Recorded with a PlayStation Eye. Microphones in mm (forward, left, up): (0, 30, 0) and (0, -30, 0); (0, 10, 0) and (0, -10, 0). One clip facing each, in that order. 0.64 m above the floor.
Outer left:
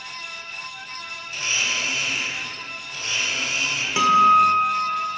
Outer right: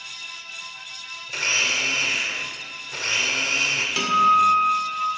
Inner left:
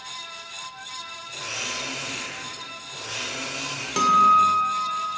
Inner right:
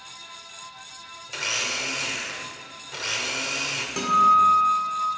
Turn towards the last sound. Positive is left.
turn(degrees=20)  # may be behind; listen again after turning